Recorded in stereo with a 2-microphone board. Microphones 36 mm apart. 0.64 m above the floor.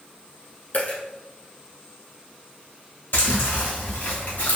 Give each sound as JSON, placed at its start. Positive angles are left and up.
{"t": 0.7, "sound": "a dropped coin", "side_deg": 55, "distance_m": 1.8}
{"t": 3.1, "sound": "chewing", "side_deg": 80, "distance_m": 1.9}